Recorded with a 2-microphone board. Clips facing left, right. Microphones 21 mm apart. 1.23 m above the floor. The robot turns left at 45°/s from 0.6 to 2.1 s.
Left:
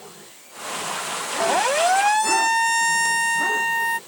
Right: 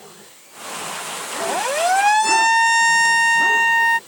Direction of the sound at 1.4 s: 20° left (ahead or behind).